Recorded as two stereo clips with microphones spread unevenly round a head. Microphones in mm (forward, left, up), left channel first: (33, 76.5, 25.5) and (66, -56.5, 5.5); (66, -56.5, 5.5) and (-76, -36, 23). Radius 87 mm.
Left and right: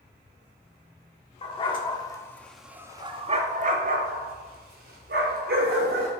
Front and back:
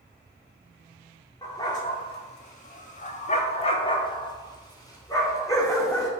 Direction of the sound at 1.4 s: 70° left.